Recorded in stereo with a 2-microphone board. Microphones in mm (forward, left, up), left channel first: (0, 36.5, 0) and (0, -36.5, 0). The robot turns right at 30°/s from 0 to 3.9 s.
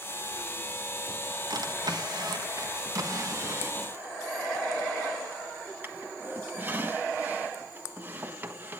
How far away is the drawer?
About 1.4 m.